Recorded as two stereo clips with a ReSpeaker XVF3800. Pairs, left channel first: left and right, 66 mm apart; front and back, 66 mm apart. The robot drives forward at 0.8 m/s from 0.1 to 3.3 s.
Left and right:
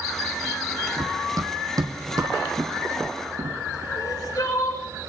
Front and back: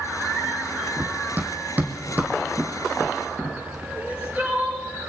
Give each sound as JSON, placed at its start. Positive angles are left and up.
{"t": 1.0, "sound": "running footsteps", "azimuth_deg": -120, "distance_m": 1.6}
{"t": 3.9, "sound": "crying", "azimuth_deg": 115, "distance_m": 3.0}